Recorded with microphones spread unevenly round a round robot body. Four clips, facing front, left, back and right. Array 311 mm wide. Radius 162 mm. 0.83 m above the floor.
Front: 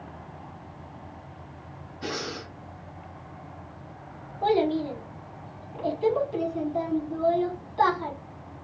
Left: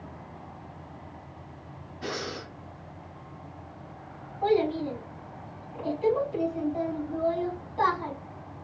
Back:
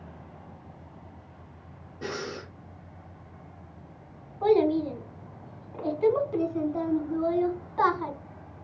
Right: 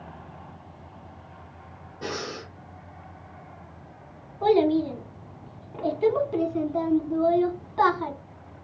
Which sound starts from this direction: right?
A child speaking, at 4.4 s.